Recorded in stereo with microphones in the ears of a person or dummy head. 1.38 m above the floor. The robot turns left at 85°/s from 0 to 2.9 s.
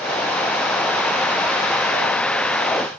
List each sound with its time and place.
Only background noise.